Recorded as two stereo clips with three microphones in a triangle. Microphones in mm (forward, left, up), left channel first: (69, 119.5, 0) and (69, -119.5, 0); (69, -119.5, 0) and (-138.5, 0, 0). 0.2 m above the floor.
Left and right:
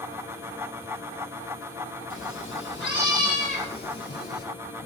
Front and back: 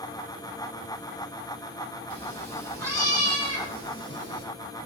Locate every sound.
2.1 s a cat meowing: 55° left, 2.5 m; by 4.5 s 40° left, 4 m